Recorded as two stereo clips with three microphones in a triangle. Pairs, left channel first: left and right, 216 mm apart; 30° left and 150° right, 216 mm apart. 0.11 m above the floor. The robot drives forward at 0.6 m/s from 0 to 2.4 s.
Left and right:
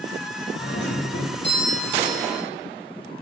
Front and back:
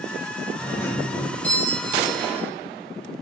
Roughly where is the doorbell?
Left.